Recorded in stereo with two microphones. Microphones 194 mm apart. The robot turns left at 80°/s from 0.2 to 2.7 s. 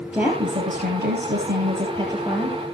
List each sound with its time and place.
0.1 s a woman speaking: 10° right, 3.5 m; by 2.6 s 160° left, 3.5 m